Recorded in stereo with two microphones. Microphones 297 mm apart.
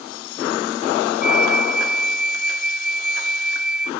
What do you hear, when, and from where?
1.2 s a flute: 75° left (ahead or behind)